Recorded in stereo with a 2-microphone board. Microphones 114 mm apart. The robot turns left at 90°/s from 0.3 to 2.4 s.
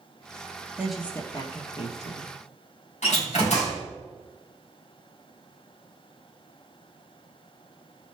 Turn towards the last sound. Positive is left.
turn(degrees=85)